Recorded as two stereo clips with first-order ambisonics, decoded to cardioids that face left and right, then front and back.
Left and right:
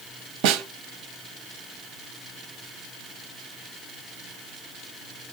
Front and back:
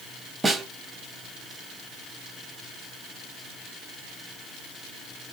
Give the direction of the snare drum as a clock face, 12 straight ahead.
3 o'clock.